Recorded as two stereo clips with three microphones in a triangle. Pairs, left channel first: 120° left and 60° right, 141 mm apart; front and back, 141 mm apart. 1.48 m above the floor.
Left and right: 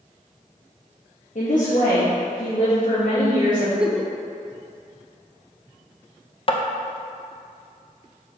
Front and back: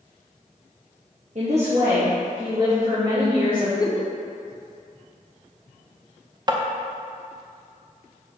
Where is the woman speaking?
145° left, 1.1 m; by 3.7 s 125° left, 4.5 m.